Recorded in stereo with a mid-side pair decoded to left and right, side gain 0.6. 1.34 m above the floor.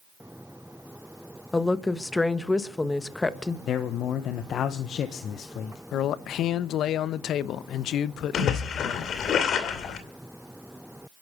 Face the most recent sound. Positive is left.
turn(degrees=50)